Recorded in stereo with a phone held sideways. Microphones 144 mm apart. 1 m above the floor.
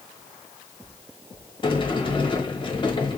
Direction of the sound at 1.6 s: 35° left (ahead or behind).